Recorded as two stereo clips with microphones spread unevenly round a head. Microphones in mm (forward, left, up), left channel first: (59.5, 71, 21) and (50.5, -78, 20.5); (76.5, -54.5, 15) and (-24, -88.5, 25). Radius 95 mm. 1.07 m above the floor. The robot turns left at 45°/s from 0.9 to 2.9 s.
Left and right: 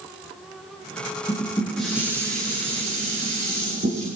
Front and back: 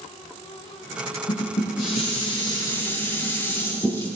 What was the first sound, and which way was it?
Dishes clattering, 20° left.